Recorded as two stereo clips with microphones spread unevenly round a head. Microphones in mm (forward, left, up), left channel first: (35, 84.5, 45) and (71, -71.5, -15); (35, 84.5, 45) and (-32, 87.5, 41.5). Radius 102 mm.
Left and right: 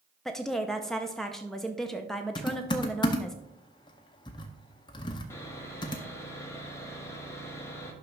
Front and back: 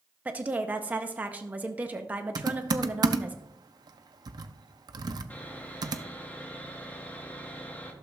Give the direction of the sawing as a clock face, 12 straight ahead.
10 o'clock.